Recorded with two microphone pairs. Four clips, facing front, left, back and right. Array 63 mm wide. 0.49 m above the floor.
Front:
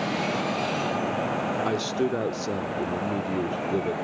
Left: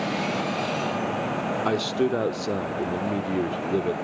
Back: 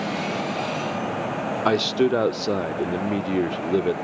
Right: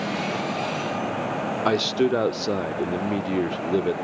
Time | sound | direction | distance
1.6 | a man speaking | 155° right | 0.8 m